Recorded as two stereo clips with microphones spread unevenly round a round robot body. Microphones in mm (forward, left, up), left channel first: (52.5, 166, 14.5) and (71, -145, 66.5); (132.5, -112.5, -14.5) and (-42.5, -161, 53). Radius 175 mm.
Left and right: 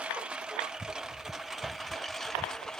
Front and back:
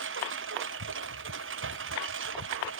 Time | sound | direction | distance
0.0 | a lawn mower | 175° right | ?